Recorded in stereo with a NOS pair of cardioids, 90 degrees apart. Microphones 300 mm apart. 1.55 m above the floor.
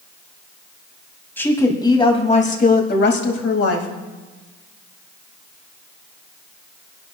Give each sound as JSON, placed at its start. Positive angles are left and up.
{"t": 1.4, "sound": "a woman speaking", "azimuth_deg": 5, "distance_m": 2.5}